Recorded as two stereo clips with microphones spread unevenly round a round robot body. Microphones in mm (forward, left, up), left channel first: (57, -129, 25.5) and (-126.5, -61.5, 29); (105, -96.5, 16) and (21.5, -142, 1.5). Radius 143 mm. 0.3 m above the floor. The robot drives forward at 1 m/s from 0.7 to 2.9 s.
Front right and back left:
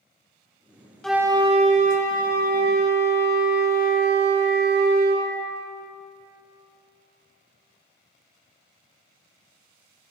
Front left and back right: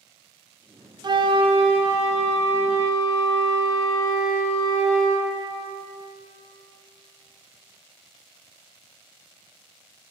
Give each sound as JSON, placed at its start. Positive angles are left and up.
{"t": 1.0, "sound": "a flute", "azimuth_deg": -105, "distance_m": 0.6}